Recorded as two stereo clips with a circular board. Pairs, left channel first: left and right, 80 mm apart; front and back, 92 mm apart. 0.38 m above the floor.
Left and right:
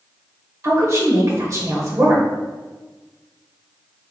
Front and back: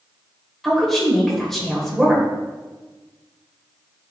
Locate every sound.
0.6 s a woman speaking: 85° right, 1.2 m